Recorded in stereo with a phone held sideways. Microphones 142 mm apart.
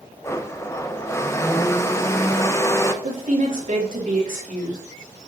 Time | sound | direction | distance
0.2 | a blender | 20° left (ahead or behind) | 0.6 m
3.0 | a woman speaking | 70° right (ahead or behind) | 2.5 m